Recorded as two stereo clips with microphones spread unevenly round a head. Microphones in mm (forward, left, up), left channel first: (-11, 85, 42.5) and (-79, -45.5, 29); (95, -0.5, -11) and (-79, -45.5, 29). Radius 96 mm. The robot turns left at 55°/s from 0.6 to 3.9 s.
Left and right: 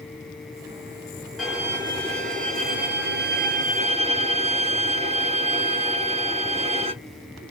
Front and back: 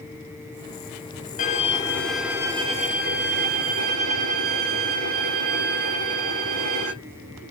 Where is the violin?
30° right, 0.7 m; by 6.9 s 165° right, 0.7 m.